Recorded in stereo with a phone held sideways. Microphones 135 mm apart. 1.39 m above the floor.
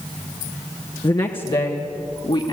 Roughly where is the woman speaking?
Left.